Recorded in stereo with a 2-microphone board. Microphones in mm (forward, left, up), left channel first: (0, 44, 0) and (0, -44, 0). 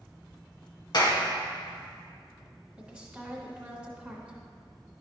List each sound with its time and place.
0.9 s a clap: 55° left (ahead or behind), 1.4 m
2.8 s a woman speaking: 15° right (ahead or behind), 1.3 m